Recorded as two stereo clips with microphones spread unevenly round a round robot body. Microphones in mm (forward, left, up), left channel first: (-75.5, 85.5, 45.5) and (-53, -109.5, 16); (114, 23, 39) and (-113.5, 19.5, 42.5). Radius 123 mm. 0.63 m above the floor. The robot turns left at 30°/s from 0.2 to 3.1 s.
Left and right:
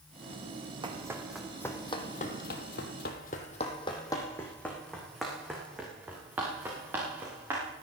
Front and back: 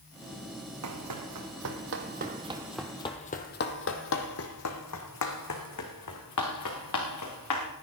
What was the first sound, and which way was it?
Running footsteps, 155° right.